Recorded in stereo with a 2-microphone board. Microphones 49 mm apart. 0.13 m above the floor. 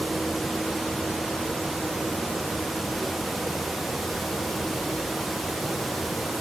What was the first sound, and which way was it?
Only background noise.